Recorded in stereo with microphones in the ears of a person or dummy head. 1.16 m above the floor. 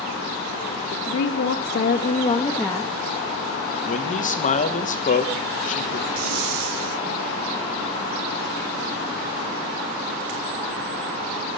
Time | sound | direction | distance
0.9 | a woman speaking | 85° left | 1.9 m
3.9 | a man speaking | 30° left (ahead or behind) | 1.4 m
6.2 | breathing | 85° right | 2 m